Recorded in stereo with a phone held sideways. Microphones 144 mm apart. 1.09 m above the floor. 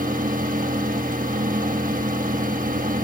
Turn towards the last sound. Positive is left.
turn(degrees=-70)  # may be behind; listen again after turning